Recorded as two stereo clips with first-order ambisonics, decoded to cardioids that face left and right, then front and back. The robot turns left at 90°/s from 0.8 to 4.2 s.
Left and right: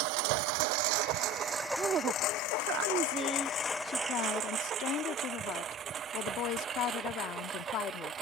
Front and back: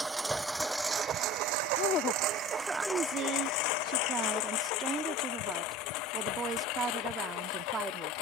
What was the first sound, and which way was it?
A lawn mower, 100° right.